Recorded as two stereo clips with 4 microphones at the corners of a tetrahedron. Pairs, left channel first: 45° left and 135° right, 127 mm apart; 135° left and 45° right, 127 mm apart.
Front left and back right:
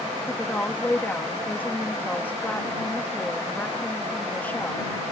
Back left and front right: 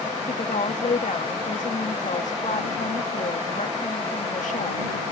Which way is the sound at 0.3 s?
120° left.